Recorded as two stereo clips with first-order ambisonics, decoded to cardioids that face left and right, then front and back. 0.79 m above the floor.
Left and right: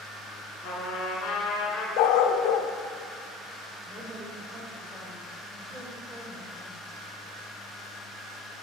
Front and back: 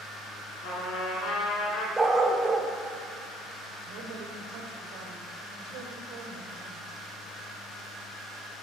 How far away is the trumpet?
About 2 m.